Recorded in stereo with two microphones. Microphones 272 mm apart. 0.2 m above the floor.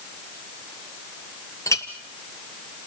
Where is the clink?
10° left (ahead or behind), 2.5 m.